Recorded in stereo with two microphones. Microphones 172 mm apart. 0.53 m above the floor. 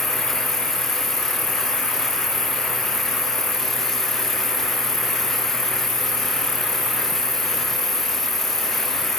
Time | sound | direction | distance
0.0 | an insect | 20° right (ahead or behind) | ?